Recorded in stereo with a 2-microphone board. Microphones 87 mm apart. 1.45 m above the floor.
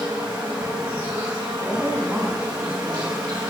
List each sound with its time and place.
0.0 s an insect: 50° right (ahead or behind), 1.8 m
1.6 s a woman speaking: 20° right (ahead or behind), 3 m